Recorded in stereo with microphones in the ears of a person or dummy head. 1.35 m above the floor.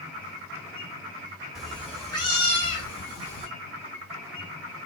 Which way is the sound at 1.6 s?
5° right (ahead or behind).